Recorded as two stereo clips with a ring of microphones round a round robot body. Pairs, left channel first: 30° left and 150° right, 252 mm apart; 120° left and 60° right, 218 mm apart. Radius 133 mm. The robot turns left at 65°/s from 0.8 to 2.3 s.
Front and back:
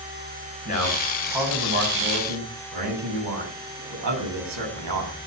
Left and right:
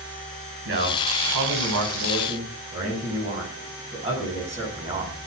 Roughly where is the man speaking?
Ahead right.